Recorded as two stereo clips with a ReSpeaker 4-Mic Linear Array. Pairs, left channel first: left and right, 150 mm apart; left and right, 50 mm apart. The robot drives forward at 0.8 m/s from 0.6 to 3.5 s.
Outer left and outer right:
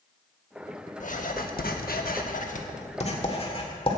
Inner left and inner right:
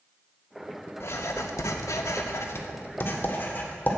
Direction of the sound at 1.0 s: 55° left (ahead or behind).